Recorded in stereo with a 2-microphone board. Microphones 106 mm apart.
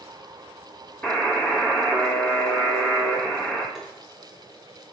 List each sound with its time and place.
1.0 s a buzzer: 15° left (ahead or behind), 1.5 m
3.8 s tapping: 5° right (ahead or behind), 1.5 m